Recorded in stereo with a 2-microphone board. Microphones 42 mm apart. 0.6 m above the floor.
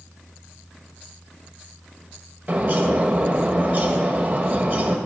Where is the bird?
45° right (ahead or behind), 1.3 m.